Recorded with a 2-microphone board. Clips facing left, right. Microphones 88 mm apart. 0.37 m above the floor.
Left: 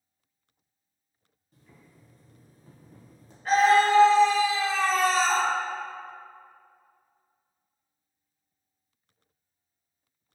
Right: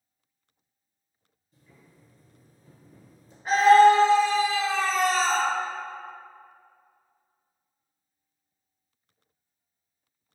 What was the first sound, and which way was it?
Boiling, 65° left (ahead or behind).